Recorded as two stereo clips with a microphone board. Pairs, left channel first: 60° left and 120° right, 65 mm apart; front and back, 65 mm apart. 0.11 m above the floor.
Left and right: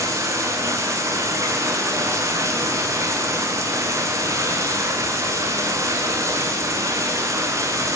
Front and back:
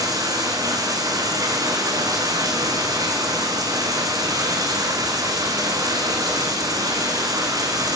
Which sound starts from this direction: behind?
Running water, at 0.0 s.